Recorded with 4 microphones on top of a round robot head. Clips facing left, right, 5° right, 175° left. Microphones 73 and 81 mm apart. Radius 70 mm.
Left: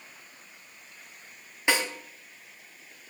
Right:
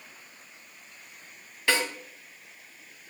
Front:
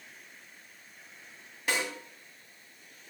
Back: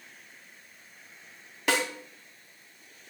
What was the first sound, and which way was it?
A snare drum, 160° left.